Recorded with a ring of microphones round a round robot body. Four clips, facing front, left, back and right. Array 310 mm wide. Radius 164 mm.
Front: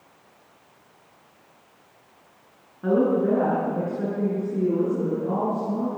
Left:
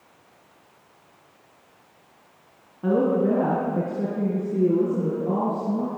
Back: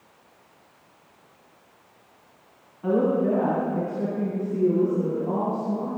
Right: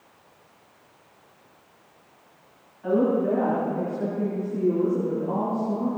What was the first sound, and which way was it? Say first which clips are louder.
A woman speaking: left 1 dB, front 1 dB; 65° left.